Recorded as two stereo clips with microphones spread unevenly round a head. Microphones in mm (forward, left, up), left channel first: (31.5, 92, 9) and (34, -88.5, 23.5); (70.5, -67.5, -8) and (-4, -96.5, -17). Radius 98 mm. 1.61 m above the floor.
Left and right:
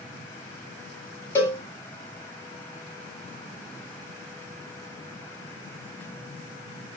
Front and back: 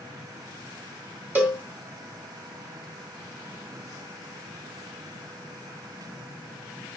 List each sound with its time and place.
1.4 s a cowbell: 165° left, 1.5 m